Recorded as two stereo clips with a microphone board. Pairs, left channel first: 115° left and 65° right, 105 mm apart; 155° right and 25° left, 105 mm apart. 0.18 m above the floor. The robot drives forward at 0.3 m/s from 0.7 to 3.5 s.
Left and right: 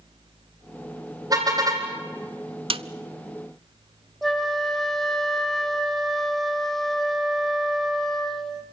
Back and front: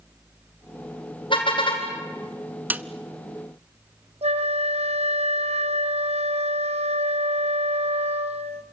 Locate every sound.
1.3 s a car horn: 120° right, 4.5 m
2.7 s a snare drum: 50° right, 0.6 m
4.2 s a flute: 25° left, 1.3 m